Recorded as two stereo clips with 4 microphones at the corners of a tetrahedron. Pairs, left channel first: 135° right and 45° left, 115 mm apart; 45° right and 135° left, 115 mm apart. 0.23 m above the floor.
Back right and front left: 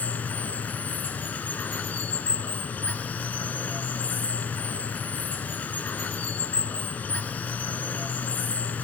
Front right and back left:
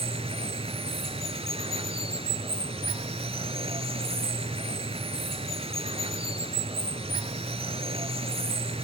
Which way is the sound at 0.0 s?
150° left.